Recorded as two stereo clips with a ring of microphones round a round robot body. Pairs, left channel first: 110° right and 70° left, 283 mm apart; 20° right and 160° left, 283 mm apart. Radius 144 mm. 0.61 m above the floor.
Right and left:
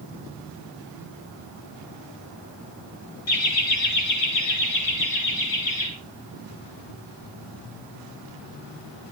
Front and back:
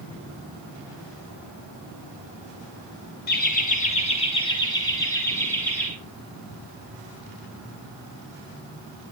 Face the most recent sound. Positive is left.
turn(degrees=-105)